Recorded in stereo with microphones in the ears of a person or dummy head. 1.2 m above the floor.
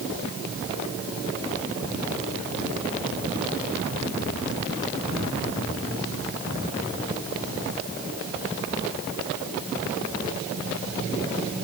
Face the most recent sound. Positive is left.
No sound to turn to.